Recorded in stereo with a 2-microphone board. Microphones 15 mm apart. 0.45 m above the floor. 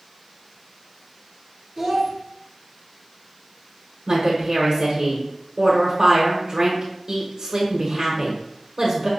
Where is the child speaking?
20° right (ahead or behind), 0.9 m.